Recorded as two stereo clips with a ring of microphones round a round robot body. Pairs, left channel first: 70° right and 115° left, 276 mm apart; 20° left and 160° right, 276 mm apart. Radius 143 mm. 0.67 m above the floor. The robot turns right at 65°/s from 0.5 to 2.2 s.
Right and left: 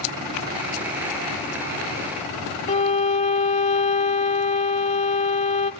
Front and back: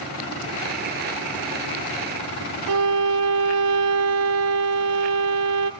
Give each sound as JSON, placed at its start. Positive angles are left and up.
{"t": 2.7, "sound": "a violin", "azimuth_deg": -130, "distance_m": 0.7}